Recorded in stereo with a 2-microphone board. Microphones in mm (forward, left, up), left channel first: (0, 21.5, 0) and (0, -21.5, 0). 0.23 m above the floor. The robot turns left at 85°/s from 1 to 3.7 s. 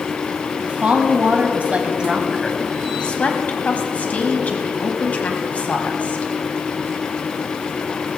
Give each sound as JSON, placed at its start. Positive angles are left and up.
{"t": 0.6, "sound": "a woman speaking", "azimuth_deg": -55, "distance_m": 1.3}